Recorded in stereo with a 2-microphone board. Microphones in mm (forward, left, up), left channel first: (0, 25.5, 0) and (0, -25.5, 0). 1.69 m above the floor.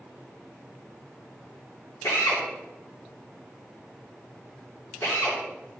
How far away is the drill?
About 3 m.